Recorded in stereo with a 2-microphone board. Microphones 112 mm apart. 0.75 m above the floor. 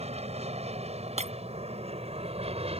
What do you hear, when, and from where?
0.0 s an aircraft: 70° right (ahead or behind); by 2.8 s 60° right (ahead or behind)
1.2 s breaking glass: 75° right (ahead or behind)